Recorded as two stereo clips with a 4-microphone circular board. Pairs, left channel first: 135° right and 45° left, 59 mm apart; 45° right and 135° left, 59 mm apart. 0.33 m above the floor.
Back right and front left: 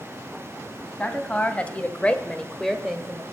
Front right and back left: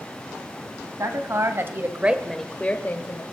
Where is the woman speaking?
160° left, 2.5 m; by 3.2 s 45° right, 1.6 m.